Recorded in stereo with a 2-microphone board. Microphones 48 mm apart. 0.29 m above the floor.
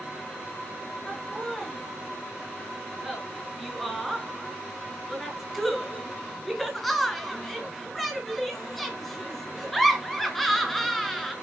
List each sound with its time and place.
1.1 s laughter: centre (ahead or behind), 3.5 m